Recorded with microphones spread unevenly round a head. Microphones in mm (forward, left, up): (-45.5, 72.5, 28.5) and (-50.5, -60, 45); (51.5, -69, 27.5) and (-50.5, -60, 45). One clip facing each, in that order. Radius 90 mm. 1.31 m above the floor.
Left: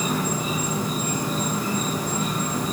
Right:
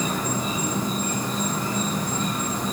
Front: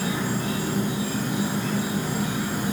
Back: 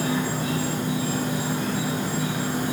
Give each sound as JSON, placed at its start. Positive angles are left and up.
{"t": 0.0, "sound": "an insect", "azimuth_deg": 175, "distance_m": 1.6}